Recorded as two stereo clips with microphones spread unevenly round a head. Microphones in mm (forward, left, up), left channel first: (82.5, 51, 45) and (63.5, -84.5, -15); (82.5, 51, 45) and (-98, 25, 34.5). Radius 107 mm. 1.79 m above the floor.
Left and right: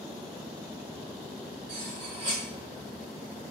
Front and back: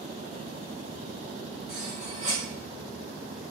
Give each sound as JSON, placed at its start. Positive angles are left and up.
{"t": 1.7, "sound": "cutlery clinking", "azimuth_deg": -175, "distance_m": 0.9}